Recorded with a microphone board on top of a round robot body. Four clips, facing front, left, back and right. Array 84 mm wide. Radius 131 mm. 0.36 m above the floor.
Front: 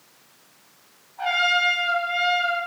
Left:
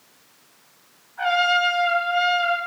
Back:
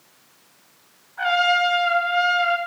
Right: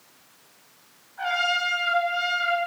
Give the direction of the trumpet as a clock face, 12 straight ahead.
7 o'clock.